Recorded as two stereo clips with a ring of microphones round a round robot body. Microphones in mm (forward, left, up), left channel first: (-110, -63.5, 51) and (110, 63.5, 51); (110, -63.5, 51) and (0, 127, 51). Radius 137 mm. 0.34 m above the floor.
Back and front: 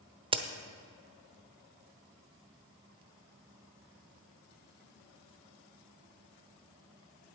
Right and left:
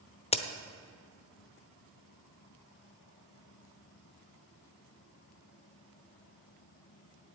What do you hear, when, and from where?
0.3 s a crack: 25° right, 0.9 m